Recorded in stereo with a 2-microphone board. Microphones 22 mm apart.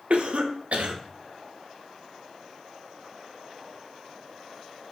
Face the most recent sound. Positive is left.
turn(degrees=-75)  # may be behind; listen again after turning